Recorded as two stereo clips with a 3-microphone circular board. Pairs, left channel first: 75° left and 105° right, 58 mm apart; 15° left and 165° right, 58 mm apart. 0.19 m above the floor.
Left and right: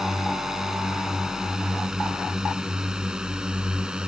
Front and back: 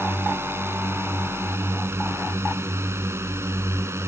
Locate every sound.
0.0 s a drone: 175° left; by 4.1 s straight behind